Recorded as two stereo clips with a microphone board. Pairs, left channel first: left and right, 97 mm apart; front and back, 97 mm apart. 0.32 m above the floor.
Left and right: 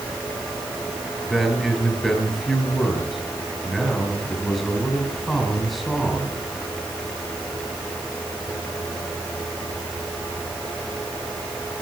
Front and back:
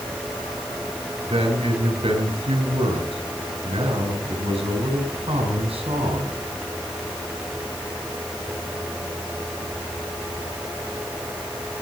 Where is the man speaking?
Straight behind, 6.5 m.